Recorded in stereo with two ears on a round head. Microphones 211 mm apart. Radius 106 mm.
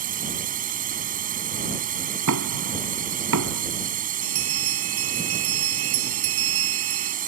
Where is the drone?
35° right (ahead or behind).